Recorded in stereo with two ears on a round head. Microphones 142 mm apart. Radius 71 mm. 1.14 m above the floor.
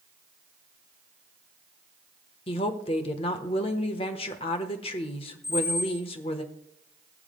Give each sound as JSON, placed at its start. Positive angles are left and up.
{"t": 2.5, "sound": "a woman speaking", "side_deg": 35, "distance_m": 1.1}
{"t": 5.4, "sound": "a squeak", "side_deg": 15, "distance_m": 4.0}